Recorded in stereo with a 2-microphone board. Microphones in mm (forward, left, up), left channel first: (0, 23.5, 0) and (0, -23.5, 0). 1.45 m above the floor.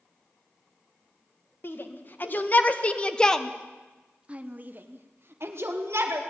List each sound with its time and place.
1.6 s a shout: 50° left (ahead or behind), 2 m; by 6.2 s 70° right (ahead or behind), 2 m